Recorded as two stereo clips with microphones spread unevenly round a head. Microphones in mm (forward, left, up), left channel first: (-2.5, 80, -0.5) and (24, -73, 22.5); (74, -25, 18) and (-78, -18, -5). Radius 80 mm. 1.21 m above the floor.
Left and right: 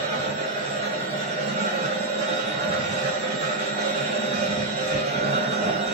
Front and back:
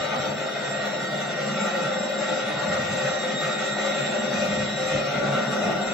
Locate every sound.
0.0 s a machine running: 85° right, 1.2 m